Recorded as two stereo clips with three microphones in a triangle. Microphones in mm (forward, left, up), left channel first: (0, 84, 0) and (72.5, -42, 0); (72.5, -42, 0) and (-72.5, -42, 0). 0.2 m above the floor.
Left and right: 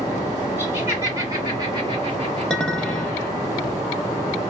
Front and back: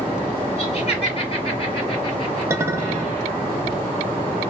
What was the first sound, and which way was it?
Laughter, 10° left.